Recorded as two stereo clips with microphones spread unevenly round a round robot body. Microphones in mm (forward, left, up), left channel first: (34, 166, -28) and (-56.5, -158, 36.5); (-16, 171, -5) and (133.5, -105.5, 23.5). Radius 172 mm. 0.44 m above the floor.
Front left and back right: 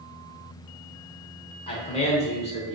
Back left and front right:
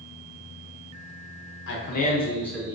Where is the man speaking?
125° left, 0.9 m; by 2.8 s 25° left, 0.9 m.